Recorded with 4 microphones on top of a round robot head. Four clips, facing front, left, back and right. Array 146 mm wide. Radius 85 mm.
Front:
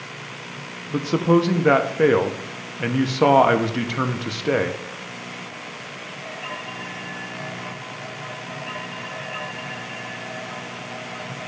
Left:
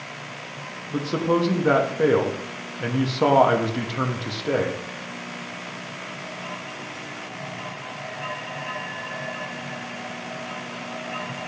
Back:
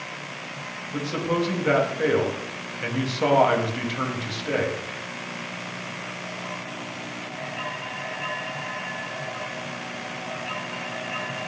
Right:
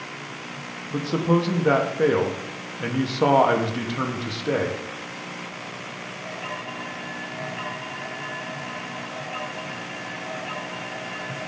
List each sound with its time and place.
0.9 s a man speaking: 10° left, 0.9 m